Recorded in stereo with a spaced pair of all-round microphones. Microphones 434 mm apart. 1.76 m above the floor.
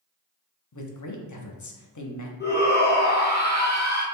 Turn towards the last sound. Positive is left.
turn(degrees=25)  # may be behind; listen again after turning